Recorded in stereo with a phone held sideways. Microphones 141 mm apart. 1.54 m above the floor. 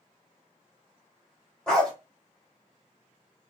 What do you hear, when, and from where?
1.7 s a dog barking: 5° left (ahead or behind), 1.0 m